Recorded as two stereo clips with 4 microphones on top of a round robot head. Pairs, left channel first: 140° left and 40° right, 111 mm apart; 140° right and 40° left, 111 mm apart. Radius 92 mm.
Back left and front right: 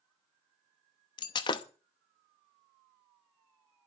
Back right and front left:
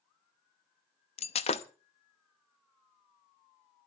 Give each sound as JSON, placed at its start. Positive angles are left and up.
{"t": 1.2, "sound": "breaking glass", "azimuth_deg": -170, "distance_m": 0.8}